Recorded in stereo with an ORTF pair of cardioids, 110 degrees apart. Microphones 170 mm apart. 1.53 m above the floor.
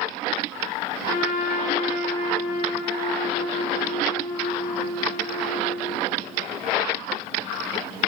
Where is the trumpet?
55° left, 0.8 m.